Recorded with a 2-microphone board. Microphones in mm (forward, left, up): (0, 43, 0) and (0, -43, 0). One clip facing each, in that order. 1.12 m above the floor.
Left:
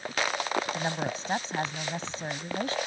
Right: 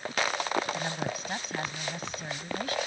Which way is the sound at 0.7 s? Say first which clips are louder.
Left 2 dB; 30° left (ahead or behind).